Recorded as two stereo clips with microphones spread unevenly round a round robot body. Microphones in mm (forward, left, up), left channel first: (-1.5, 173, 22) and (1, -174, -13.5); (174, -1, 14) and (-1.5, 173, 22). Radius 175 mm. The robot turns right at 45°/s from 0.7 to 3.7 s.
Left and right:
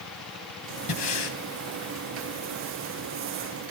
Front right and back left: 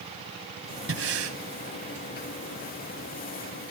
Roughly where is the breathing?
Left.